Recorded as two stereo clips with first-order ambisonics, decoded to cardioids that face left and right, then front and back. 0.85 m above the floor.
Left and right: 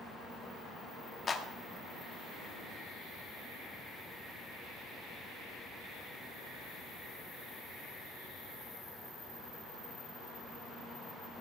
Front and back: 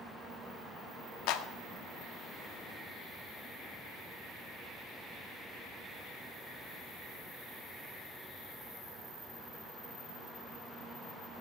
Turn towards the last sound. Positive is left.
turn(degrees=20)